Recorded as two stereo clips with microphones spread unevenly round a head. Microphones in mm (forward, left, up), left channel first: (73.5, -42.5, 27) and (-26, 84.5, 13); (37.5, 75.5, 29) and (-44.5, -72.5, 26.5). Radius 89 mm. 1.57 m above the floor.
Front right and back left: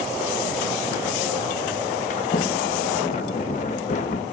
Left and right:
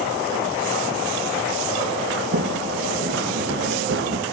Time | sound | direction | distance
2.1 | a sliding door | 95° right | 1.4 m